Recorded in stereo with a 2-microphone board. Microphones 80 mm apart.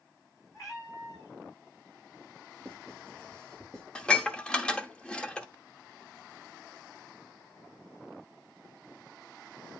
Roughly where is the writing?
Centre.